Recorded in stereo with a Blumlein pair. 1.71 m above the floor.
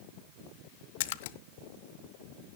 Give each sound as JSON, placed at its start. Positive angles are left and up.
{"t": 1.0, "sound": "a splash", "azimuth_deg": 55, "distance_m": 0.5}